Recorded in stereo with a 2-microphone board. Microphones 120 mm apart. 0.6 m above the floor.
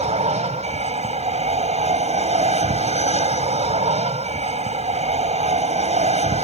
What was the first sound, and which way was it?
An aircraft, 65° right (ahead or behind).